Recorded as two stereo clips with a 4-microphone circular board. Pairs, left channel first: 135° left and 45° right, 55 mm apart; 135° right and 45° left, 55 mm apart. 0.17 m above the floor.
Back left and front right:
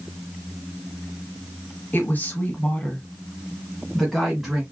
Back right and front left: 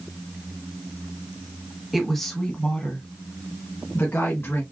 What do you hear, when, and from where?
1.9 s a woman speaking: 135° left, 1.6 m; by 4.6 s 125° right, 2.0 m